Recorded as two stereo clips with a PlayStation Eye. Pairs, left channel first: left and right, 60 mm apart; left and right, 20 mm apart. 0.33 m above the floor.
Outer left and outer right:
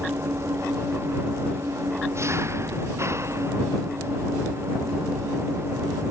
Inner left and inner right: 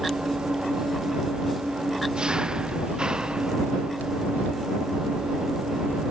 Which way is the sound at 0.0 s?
45° right (ahead or behind).